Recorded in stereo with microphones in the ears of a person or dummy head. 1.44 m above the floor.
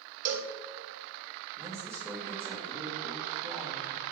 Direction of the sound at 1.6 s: 10° right (ahead or behind).